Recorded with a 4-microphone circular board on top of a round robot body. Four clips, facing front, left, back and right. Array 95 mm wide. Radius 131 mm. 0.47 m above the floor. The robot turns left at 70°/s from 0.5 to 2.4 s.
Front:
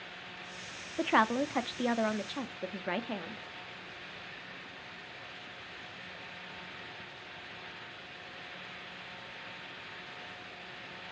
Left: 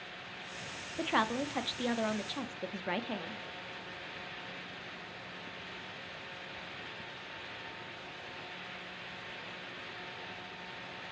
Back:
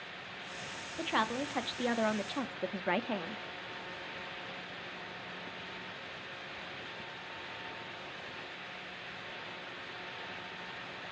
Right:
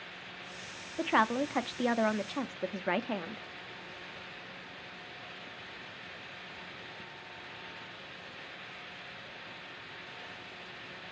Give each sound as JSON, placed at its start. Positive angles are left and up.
{"t": 1.0, "sound": "a woman speaking", "azimuth_deg": -20, "distance_m": 0.7}